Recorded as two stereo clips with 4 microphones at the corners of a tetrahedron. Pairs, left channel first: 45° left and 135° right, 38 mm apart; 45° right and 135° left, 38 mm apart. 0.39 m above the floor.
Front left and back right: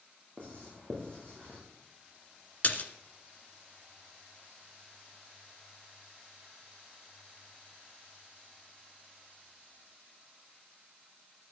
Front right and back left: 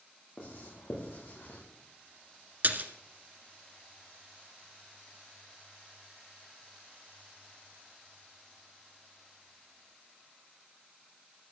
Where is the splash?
95° left, 1.9 m.